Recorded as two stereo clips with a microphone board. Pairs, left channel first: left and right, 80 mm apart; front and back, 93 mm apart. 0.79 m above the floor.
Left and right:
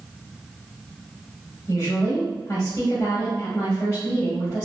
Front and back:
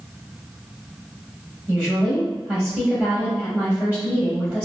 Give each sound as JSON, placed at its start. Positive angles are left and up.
{"t": 1.7, "sound": "a woman speaking", "azimuth_deg": 105, "distance_m": 0.9}